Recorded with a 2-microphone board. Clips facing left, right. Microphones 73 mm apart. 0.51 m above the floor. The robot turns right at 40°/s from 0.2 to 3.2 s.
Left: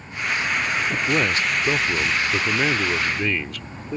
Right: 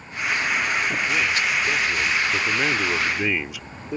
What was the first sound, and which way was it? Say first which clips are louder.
A man speaking: left 1 dB; 110° left.